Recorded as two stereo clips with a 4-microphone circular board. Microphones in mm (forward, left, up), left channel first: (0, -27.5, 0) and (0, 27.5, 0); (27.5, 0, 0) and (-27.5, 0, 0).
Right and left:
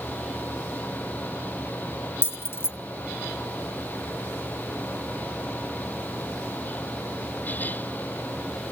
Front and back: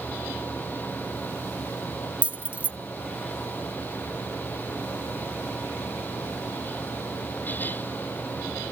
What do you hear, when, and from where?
2.2 s keys jangling: 120° right, 0.6 m